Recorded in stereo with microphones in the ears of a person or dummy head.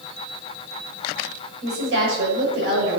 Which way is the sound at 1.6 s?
60° right (ahead or behind).